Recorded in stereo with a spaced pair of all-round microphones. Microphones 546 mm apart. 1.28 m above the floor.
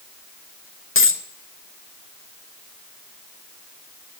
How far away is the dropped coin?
About 0.5 m.